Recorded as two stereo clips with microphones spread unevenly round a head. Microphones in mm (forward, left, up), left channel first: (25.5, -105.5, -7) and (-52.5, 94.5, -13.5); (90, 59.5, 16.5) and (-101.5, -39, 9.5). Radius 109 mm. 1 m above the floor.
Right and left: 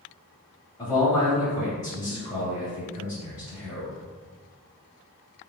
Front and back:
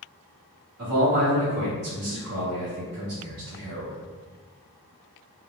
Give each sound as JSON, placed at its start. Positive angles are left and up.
{"t": 0.8, "sound": "a man speaking", "azimuth_deg": -145, "distance_m": 1.8}